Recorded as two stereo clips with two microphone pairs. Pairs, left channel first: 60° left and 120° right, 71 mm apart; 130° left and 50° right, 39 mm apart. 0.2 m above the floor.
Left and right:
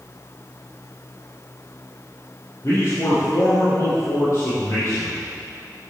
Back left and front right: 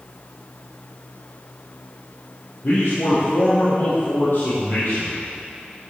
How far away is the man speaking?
About 5 m.